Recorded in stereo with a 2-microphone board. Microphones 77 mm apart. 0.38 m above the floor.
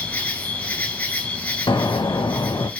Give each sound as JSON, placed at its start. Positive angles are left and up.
{"t": 0.0, "sound": "an insect", "side_deg": 20, "distance_m": 0.8}
{"t": 1.7, "sound": "an explosion", "side_deg": 85, "distance_m": 0.6}